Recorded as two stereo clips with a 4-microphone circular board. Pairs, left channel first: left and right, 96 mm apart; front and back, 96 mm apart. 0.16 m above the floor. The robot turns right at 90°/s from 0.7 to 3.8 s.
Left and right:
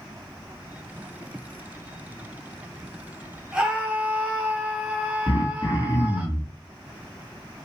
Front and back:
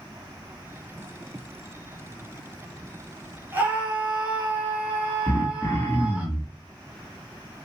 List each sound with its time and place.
3.5 s a scream: 165° right, 1.2 m; by 6.3 s 140° right, 1.2 m
5.3 s throat clearing: 60° left, 0.7 m